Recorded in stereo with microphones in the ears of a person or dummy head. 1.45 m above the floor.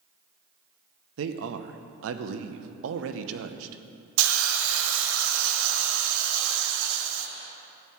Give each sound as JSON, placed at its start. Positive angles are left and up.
{"t": 1.2, "sound": "a man speaking", "side_deg": -75, "distance_m": 0.8}
{"t": 4.2, "sound": "a hiss", "side_deg": -75, "distance_m": 0.9}